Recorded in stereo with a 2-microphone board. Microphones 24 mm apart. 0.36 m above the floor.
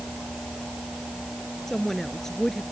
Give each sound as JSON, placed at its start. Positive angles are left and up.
{"t": 1.7, "sound": "a woman speaking", "side_deg": 20}